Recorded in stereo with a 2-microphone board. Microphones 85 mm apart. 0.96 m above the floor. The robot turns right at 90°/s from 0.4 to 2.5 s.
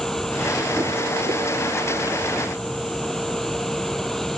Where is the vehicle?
175° left; by 4.4 s 5° left.